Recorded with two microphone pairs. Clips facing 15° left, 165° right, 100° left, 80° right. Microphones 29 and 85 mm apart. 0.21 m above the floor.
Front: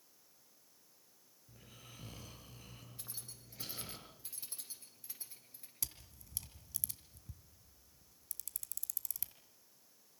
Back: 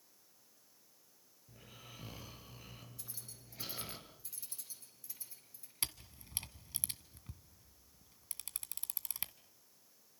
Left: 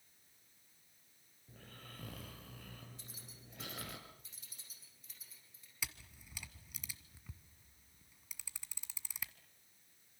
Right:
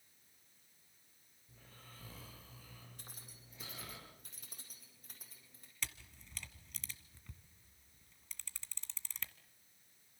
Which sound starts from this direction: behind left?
Snoring, at 1.5 s.